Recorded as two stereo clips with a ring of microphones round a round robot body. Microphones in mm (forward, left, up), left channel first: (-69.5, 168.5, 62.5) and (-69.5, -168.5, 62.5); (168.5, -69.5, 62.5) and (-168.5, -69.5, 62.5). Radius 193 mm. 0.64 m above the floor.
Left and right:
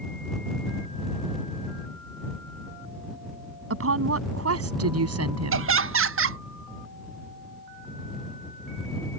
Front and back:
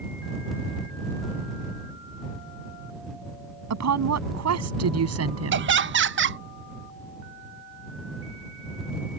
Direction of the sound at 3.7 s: 140° right.